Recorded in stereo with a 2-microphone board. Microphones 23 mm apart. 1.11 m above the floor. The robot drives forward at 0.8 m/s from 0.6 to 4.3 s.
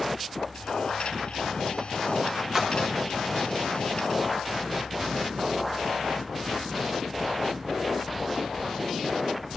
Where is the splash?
20° right (ahead or behind), 1.3 m; by 2.7 s 15° right (ahead or behind), 1.4 m.